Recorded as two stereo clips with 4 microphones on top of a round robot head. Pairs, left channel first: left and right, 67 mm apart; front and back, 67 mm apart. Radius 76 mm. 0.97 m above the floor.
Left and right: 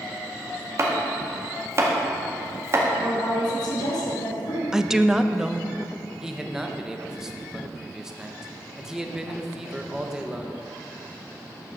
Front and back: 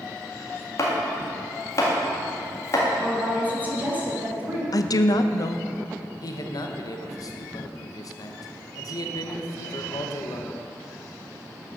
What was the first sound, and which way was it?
Chopping, 45° right.